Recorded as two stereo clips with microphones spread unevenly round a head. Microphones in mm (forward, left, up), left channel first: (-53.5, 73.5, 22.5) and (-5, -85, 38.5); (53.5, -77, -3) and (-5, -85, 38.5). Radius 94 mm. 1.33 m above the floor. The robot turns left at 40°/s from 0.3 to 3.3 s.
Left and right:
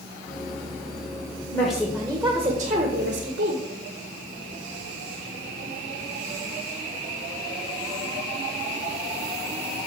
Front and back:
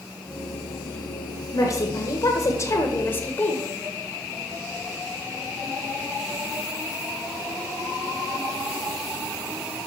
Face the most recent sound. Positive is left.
turn(degrees=-30)